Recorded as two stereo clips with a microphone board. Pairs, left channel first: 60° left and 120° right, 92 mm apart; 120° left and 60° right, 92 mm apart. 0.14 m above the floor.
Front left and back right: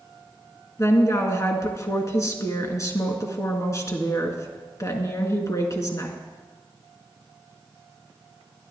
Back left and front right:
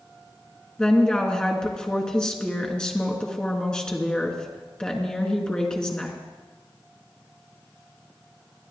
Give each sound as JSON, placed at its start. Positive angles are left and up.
{"t": 0.8, "sound": "a woman speaking", "azimuth_deg": 45, "distance_m": 1.9}